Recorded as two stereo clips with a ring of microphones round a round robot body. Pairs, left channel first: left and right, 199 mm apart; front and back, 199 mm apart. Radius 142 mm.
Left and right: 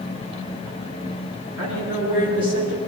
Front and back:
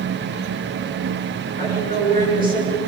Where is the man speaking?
105° right, 9.5 m.